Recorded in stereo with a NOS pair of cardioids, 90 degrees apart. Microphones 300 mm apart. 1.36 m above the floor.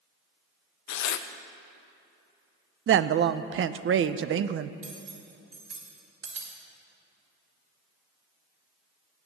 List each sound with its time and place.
0.9 s tearing paper: 65° left, 0.8 m
2.9 s a woman speaking: 45° right, 0.6 m
4.8 s cutlery clinking: 60° right, 3 m